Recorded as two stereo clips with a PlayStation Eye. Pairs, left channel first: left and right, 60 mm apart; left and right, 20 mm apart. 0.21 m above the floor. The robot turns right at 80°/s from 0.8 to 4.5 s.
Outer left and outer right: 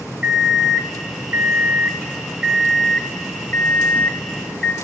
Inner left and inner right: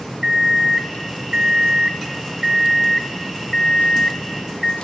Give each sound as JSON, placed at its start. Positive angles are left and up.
{"t": 0.2, "sound": "an alarm clock", "azimuth_deg": -160, "distance_m": 0.8}